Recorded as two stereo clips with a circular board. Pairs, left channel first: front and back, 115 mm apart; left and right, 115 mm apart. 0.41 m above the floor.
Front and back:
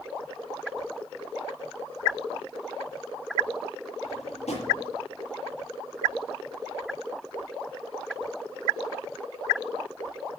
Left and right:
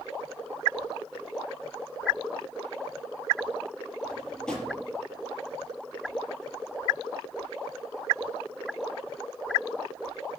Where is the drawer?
5° left, 6 m.